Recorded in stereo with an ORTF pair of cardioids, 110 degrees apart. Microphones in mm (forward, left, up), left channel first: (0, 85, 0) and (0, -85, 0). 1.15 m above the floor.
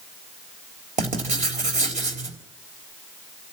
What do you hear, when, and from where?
1.0 s writing: 45° right, 3.5 m